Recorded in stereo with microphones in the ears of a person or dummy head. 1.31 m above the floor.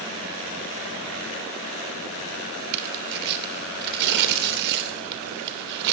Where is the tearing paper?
55° right (ahead or behind), 3 m.